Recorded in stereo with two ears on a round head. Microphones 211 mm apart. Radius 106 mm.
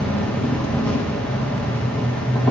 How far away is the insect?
About 0.8 m.